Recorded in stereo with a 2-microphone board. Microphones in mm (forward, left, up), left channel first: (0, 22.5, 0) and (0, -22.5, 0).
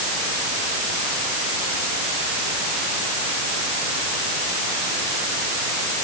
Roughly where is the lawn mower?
I don't hear a lawn mower.